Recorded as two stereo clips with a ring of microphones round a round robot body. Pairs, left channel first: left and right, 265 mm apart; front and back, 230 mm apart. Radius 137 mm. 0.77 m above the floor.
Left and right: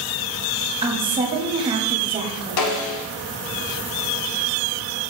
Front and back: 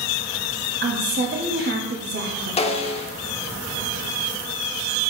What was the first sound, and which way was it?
A woman speaking, 155° right.